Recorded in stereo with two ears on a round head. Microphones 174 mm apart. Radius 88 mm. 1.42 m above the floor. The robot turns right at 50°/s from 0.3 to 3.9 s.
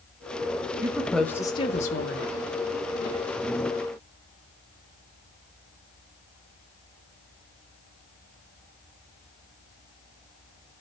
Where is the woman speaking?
15° right, 1.7 m; by 2.3 s 60° left, 1.7 m.